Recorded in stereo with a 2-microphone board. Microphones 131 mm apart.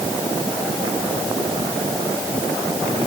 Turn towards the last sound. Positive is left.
No sound to turn to.